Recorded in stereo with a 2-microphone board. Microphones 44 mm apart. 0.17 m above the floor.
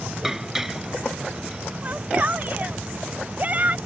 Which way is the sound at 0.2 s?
10° right (ahead or behind).